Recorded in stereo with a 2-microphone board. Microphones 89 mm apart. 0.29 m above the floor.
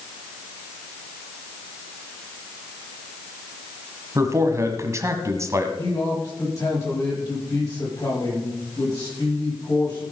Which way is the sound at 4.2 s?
35° right (ahead or behind).